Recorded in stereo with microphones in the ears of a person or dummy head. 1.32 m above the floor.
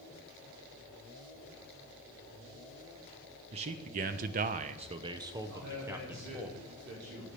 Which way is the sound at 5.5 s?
60° right (ahead or behind).